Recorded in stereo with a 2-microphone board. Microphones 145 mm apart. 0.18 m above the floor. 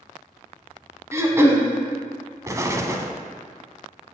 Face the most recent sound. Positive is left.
turn(degrees=-20)  # may be behind; listen again after turning